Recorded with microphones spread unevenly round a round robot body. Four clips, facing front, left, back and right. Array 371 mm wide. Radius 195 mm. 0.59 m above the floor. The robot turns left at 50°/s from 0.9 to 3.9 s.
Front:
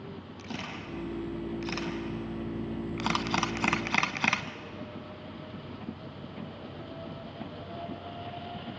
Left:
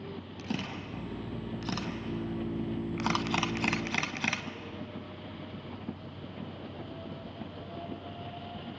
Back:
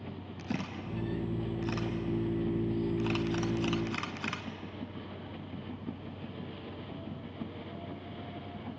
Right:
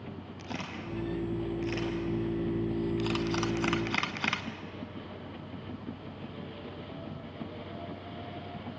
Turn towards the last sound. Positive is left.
turn(degrees=-20)